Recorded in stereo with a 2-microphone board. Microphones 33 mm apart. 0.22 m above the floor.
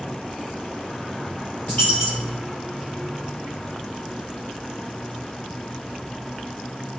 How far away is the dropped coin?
About 2.5 m.